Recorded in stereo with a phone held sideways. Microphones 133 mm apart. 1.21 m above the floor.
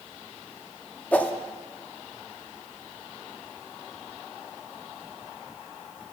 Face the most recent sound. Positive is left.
turn(degrees=10)  # may be behind; listen again after turning